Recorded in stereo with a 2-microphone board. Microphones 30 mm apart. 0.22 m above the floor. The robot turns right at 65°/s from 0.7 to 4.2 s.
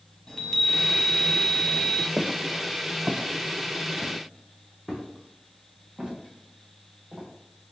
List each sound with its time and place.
0.3 s a chime: 20° left, 1.0 m; by 2.1 s 105° left, 1.0 m
2.2 s footsteps: 50° right (ahead or behind), 0.6 m; by 7.3 s 15° right (ahead or behind), 2.5 m